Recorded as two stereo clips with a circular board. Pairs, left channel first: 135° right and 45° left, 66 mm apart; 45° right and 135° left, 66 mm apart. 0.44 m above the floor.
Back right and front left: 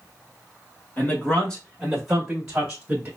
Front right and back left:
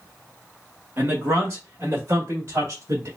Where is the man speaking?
170° left, 1.5 m; by 3.1 s 110° left, 2 m.